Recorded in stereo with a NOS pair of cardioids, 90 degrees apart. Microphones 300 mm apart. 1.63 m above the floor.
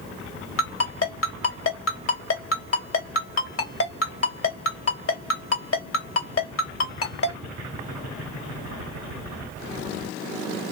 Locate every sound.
0.6 s a ringtone: 50° left, 2.5 m